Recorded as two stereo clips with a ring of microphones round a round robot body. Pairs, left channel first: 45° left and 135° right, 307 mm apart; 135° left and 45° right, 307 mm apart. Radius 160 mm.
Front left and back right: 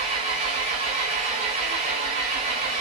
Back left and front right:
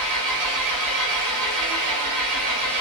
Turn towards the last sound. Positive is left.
turn(degrees=-65)